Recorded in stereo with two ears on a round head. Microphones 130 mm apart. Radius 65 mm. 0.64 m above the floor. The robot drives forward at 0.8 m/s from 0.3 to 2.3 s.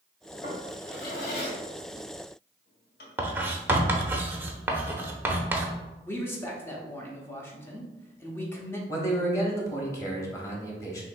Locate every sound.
0.4 s a drawer: 45° left (ahead or behind), 1.6 m; by 3.1 s 70° left (ahead or behind), 1.2 m
3.2 s writing: 15° right (ahead or behind), 0.6 m
6.0 s a man speaking: 15° left (ahead or behind), 0.9 m
8.9 s a man speaking: 20° left (ahead or behind), 1.0 m